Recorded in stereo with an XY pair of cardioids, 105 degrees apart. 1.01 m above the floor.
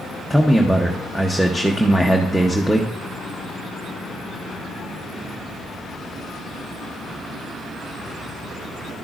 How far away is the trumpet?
No trumpet in this recording.